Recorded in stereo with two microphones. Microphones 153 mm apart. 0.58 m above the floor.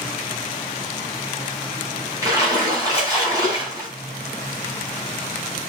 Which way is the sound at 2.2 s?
25° right (ahead or behind).